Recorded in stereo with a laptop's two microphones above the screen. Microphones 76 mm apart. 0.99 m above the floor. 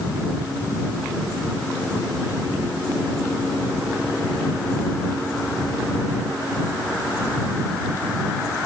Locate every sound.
Only background noise.